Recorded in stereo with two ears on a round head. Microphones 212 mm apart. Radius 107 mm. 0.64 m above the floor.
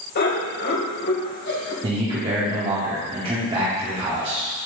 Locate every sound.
0.1 s laughter: 45° left (ahead or behind), 3 m; by 1.7 s 50° left (ahead or behind), 2 m
1.8 s a man speaking: 25° right (ahead or behind), 1.7 m